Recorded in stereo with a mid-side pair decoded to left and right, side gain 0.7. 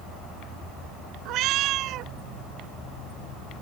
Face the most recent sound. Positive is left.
turn(degrees=-55)